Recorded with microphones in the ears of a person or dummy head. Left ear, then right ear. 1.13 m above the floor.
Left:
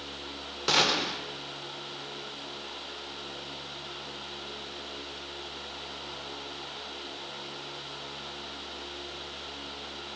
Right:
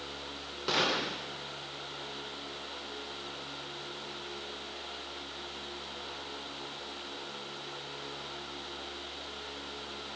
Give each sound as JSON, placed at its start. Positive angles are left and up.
{"t": 0.7, "sound": "a gunshot", "side_deg": 15, "distance_m": 0.7}